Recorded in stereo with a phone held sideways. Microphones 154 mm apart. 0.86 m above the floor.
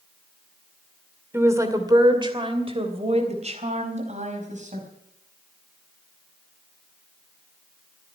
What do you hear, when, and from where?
1.3 s a woman speaking: 15° right (ahead or behind), 2.5 m; by 4.9 s 55° right (ahead or behind), 5 m